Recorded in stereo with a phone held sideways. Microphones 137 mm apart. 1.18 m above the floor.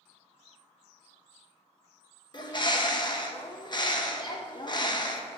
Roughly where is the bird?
Left.